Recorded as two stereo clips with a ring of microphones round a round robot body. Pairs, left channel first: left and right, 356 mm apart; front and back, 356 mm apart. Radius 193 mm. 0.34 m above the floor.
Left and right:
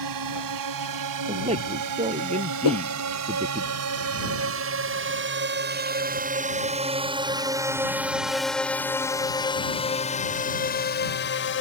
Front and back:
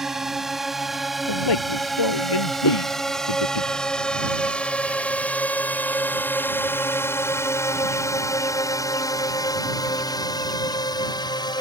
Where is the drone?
90° right; by 11.6 s 70° left.